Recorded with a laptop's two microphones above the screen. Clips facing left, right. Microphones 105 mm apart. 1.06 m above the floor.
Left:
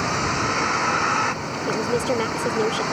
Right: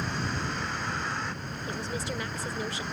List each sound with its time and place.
0.0 s a vehicle: 85° left
1.7 s a woman speaking: 85° left